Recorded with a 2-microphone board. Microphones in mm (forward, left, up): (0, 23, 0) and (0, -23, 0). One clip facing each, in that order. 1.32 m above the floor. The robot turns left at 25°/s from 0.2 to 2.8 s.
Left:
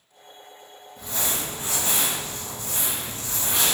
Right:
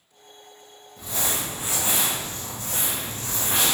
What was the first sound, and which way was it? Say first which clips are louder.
Crumpling: right 1 dB; straight ahead.